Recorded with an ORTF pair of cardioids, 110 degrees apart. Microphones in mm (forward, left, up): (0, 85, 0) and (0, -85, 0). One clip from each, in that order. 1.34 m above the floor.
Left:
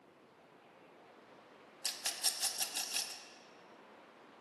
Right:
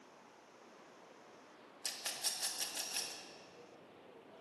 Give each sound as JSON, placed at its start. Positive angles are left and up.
{"t": 1.8, "sound": "a rattle", "azimuth_deg": 30, "distance_m": 1.6}